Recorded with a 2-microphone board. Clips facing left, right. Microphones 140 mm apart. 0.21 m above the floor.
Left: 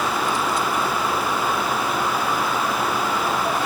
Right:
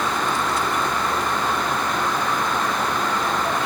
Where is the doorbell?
I don't hear a doorbell.